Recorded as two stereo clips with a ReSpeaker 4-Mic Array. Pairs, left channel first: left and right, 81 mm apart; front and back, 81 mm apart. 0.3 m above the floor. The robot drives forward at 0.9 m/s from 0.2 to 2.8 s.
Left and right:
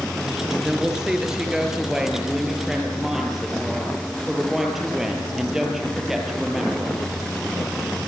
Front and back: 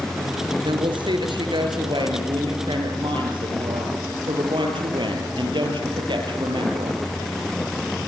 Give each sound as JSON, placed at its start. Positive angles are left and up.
{"t": 0.6, "sound": "a woman speaking", "azimuth_deg": -170, "distance_m": 4.5}